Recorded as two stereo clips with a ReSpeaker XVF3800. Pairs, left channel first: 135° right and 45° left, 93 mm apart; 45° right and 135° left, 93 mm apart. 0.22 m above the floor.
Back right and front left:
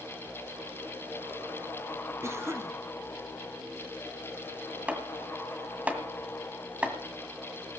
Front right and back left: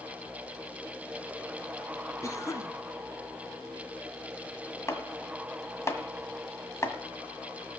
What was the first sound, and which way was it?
A cough, 5° right.